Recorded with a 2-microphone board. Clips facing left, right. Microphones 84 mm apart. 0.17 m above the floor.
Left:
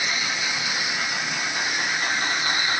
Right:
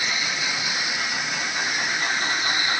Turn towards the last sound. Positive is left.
No sound to turn to.